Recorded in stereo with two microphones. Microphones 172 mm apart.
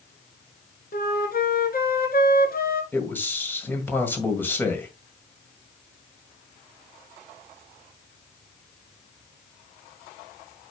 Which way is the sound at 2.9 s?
10° left (ahead or behind).